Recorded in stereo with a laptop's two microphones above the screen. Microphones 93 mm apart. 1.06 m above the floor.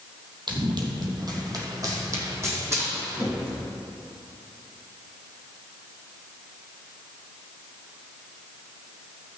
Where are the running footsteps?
55° right (ahead or behind), 2 m; by 3.6 s 25° right (ahead or behind), 4 m.